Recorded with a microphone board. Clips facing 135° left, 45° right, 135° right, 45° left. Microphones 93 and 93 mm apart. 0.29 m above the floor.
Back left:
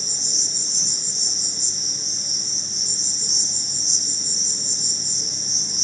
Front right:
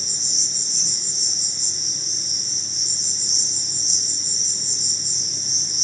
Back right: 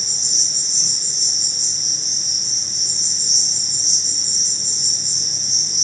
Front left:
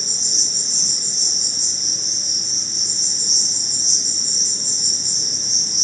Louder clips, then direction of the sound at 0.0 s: Back left 2 dB, front left 3 dB; 95° left.